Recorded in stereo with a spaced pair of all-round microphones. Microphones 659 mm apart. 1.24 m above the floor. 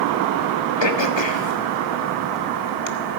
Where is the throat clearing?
40° left (ahead or behind), 1.4 m.